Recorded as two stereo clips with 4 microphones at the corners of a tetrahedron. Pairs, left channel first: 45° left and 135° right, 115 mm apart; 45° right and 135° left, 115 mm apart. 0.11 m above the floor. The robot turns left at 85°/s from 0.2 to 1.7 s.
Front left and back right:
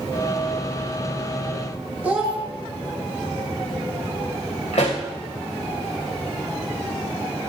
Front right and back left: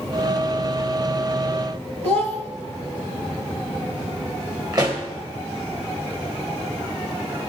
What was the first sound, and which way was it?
A child speaking, 150° left.